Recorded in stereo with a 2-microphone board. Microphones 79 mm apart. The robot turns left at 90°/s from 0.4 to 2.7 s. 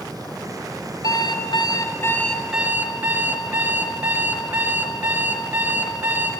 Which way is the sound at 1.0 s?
125° left.